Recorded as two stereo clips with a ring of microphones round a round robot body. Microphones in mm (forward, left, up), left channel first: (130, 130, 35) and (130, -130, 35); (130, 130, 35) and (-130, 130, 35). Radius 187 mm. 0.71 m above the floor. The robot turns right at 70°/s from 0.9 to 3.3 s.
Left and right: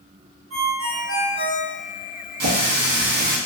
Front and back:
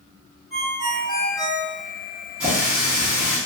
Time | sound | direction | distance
0.5 | a ringtone | 90° right | 1.3 m
2.4 | a running tap | 95° right | 0.7 m